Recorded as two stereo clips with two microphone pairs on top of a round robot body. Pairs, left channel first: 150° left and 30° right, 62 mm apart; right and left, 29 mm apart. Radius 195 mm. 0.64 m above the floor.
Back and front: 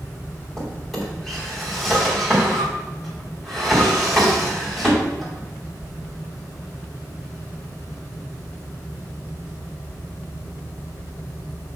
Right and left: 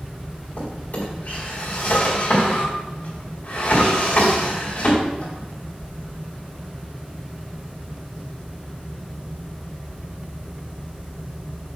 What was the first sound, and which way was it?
A drawer, 125° right.